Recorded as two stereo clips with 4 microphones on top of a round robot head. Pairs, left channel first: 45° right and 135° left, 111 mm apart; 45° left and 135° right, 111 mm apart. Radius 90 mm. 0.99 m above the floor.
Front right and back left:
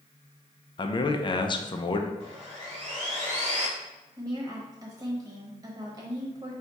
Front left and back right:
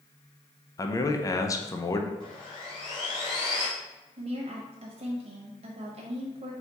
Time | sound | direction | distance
0.8 | a man speaking | 10° right | 0.6 m
2.2 | sawing | 95° left | 1.4 m
4.2 | a woman speaking | 170° right | 0.9 m